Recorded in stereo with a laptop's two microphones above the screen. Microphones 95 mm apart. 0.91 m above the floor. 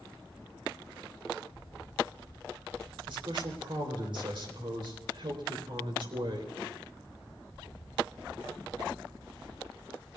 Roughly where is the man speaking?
Right.